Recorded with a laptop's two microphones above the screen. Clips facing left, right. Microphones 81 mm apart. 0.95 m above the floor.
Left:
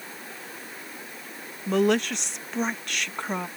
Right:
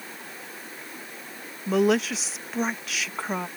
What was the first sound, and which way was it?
A woman speaking, 5° right (ahead or behind).